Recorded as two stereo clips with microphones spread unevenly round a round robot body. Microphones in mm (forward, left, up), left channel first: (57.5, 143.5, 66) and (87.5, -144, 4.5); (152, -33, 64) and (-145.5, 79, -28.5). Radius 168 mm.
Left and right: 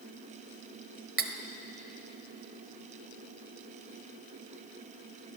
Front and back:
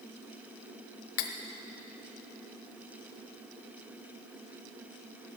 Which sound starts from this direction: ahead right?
Cutlery clinking, at 1.2 s.